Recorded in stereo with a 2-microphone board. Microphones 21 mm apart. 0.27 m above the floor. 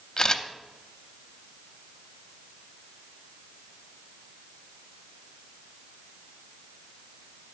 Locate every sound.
0.2 s a camera shutter: 25° left (ahead or behind), 0.7 m